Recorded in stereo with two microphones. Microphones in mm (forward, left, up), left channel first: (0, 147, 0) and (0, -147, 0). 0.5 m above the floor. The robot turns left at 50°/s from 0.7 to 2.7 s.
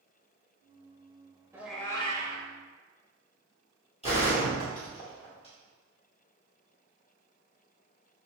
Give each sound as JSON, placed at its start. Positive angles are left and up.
{"t": 1.5, "sound": "a cat meowing", "azimuth_deg": -170, "distance_m": 0.5}
{"t": 4.0, "sound": "a gunshot", "side_deg": 20, "distance_m": 1.5}